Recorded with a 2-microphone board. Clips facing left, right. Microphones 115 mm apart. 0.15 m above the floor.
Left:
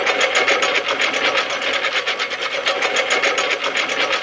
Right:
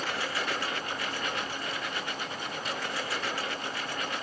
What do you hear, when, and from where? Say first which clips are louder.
0.0 s a lawn mower: left 14 dB; 90° left; by 4.2 s 85° left